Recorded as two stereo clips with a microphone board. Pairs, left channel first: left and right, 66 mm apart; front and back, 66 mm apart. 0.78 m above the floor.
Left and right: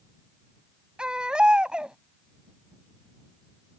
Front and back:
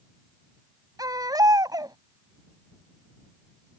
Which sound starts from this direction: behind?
A baby crying, at 1.0 s.